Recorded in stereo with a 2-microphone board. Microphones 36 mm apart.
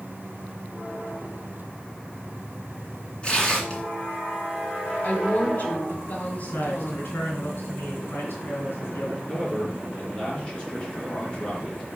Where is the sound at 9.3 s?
25° left (ahead or behind), 3.5 m.